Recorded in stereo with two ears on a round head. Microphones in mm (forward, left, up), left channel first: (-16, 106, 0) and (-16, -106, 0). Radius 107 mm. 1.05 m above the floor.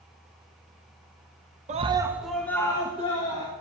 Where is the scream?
30° right (ahead or behind), 0.9 m; by 3.5 s 25° left (ahead or behind), 2 m.